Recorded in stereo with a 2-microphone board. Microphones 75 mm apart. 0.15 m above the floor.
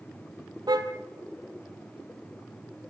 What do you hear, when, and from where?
0.7 s a car horn: 65° right (ahead or behind), 2 m